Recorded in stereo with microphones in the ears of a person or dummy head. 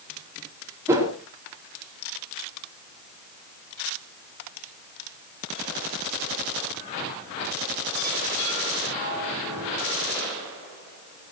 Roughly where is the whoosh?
Centre.